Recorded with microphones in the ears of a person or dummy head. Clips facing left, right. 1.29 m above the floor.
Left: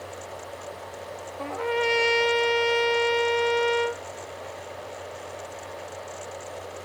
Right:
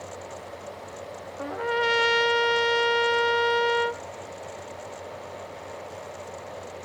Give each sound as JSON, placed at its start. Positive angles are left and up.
{"t": 1.4, "sound": "a trumpet", "side_deg": -10, "distance_m": 0.6}